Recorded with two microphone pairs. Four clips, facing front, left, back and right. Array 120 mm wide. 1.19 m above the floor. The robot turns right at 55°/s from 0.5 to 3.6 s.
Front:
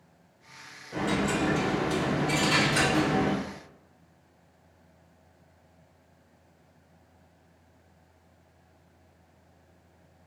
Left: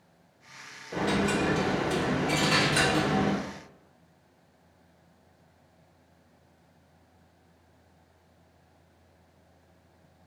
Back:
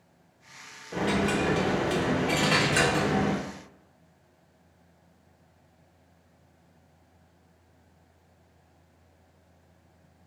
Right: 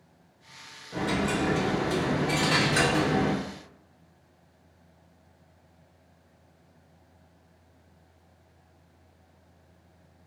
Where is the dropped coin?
125° left, 0.9 m; by 3.4 s 100° right, 0.9 m.